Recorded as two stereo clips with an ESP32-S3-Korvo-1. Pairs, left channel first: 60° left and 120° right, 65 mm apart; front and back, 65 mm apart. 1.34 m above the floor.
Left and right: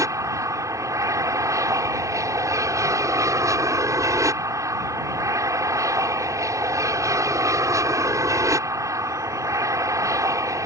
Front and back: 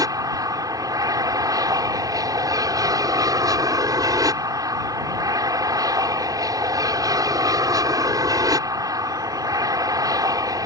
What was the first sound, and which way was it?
An aircraft, 155° right.